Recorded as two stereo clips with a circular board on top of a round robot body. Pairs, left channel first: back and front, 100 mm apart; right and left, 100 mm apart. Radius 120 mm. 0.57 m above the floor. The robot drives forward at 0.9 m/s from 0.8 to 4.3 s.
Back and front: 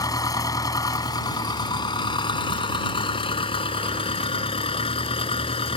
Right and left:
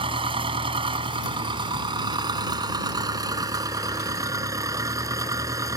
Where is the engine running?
125° left; by 5.8 s 150° left.